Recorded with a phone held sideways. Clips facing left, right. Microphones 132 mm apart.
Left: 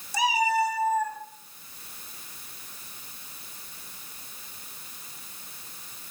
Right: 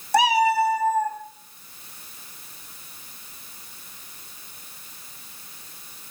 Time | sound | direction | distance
0.1 | a cat meowing | 65° right (ahead or behind) | 0.6 m